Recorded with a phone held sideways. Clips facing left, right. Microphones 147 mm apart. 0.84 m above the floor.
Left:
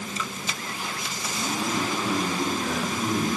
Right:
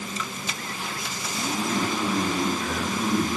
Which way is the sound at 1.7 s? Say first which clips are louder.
Right 1 dB; 40° left (ahead or behind).